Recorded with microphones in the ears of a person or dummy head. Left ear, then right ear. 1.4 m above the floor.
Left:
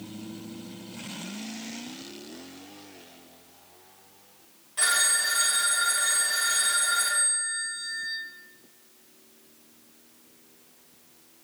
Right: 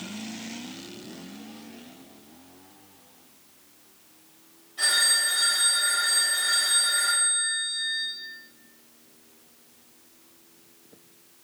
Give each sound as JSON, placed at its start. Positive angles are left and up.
{"t": 4.8, "sound": "a phone ringing", "side_deg": 45, "distance_m": 0.8}